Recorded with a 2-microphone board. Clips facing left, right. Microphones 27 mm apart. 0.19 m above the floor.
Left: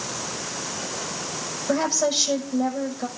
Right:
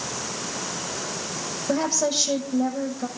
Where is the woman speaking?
10° left (ahead or behind), 7 m.